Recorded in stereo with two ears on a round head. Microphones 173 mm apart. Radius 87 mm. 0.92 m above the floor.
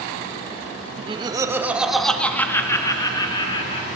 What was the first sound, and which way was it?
Laughter, 30° right (ahead or behind).